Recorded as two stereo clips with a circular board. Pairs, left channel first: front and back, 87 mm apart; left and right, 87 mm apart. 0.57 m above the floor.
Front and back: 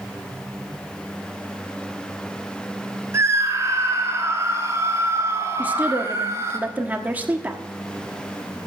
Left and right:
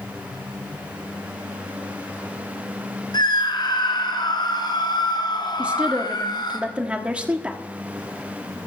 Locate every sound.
3.1 s a scream: 120° left, 7.5 m
5.6 s a woman speaking: 145° right, 1.3 m